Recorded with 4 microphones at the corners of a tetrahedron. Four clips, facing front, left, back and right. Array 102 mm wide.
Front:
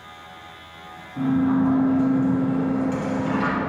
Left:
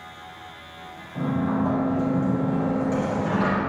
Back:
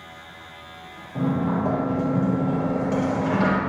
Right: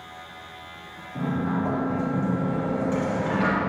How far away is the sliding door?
About 4 m.